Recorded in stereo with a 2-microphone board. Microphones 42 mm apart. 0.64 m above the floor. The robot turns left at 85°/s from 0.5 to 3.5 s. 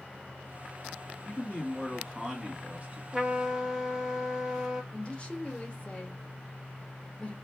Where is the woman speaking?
25° left (ahead or behind), 0.9 m.